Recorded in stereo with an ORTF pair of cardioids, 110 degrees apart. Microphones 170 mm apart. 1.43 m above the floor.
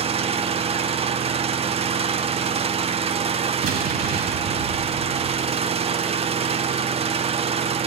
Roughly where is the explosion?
Ahead right.